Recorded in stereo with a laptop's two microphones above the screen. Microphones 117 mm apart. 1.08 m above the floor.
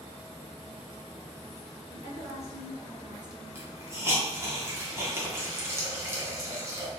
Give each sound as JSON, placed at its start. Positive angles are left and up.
{"t": 1.9, "sound": "a woman speaking", "side_deg": -30, "distance_m": 1.4}
{"t": 3.5, "sound": "a hiss", "side_deg": -20, "distance_m": 0.9}